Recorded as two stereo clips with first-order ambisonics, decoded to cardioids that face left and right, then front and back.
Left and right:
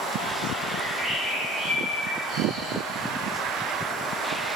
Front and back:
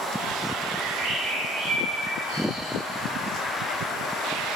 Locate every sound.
0.7 s a bird: 175° right, 3 m